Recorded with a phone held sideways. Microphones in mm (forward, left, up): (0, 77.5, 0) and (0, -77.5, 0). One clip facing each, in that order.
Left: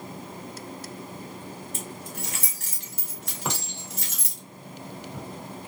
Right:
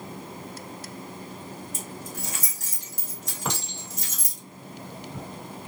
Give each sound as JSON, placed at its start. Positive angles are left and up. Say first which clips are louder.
{"t": 1.7, "sound": "keys jangling", "louder": "even", "side_deg": 65, "distance_m": 1.2}
{"t": 3.5, "sound": "a clink", "louder": "even", "side_deg": 5, "distance_m": 1.2}